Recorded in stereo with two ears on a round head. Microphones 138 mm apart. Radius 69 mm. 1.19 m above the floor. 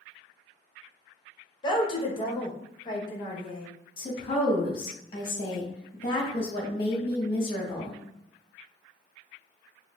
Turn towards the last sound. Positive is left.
turn(degrees=35)  # may be behind; listen again after turning